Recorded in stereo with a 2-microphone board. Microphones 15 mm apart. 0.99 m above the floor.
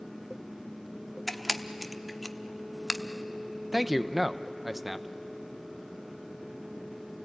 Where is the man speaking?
10° right (ahead or behind), 0.7 m.